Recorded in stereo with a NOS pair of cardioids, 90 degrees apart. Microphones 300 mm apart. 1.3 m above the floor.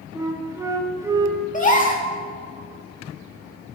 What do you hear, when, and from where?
0.1 s a flute: 10° right, 2 m
1.5 s a gasp: 25° left, 2.5 m